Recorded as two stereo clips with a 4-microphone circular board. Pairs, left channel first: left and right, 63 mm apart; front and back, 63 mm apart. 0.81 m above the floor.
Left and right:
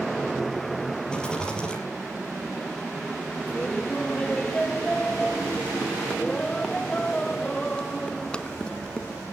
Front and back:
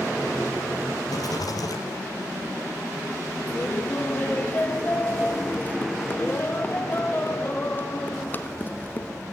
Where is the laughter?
25° left, 1.2 m.